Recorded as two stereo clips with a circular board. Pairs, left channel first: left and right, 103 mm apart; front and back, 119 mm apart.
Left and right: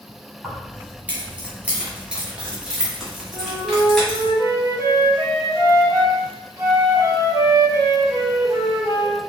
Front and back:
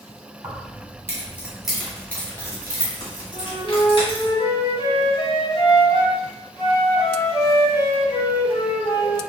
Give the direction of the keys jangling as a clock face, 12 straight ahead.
5 o'clock.